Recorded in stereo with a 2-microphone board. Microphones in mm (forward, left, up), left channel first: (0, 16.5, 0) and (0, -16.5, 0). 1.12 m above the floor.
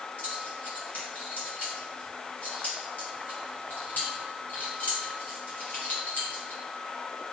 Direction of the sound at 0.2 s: 55° left (ahead or behind).